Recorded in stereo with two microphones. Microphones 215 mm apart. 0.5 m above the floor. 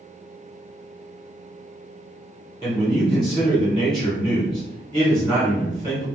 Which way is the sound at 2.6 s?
20° left (ahead or behind).